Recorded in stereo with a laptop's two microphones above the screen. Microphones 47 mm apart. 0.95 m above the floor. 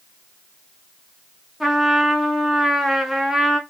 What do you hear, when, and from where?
1.6 s a trumpet: 5° right (ahead or behind), 0.7 m